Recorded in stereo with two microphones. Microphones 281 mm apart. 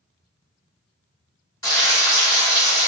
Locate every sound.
1.6 s frying: 15° left (ahead or behind), 1.2 m